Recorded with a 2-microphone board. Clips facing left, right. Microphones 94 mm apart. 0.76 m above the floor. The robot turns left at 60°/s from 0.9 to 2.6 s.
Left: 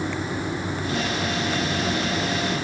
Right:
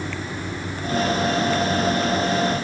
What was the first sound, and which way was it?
Only background noise.